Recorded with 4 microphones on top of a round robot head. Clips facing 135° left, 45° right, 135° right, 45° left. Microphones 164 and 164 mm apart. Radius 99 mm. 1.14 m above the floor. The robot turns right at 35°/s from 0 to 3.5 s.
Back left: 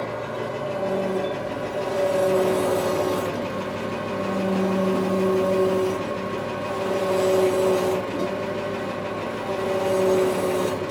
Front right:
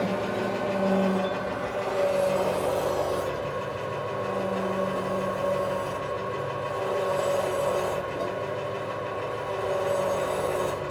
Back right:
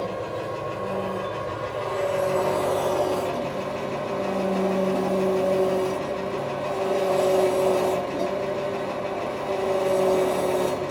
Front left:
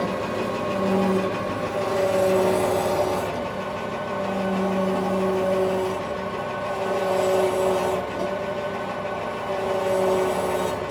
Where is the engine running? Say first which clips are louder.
Front right 1 dB, front left 3 dB; 20° left, 1.4 m; by 10.9 s 145° left, 1.4 m.